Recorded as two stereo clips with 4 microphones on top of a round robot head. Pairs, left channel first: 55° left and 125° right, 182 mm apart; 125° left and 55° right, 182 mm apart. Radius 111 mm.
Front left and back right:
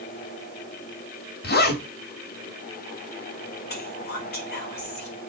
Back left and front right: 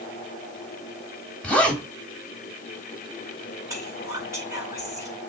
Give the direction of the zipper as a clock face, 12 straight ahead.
11 o'clock.